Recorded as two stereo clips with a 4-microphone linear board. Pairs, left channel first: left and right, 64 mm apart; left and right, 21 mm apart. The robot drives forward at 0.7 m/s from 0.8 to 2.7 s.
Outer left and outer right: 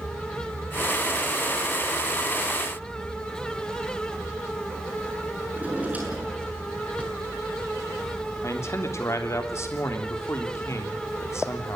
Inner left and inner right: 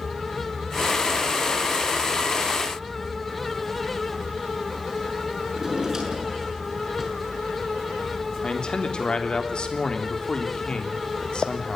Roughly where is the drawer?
Right.